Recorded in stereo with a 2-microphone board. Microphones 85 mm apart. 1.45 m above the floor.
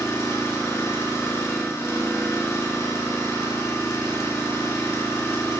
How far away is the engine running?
About 1.0 m.